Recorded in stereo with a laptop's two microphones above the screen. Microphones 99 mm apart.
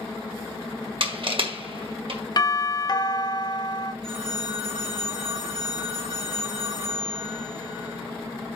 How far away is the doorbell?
About 0.7 m.